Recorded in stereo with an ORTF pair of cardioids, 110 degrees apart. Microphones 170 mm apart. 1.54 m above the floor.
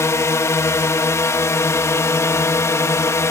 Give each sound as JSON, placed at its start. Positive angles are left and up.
{"t": 0.0, "sound": "a drone", "azimuth_deg": 15}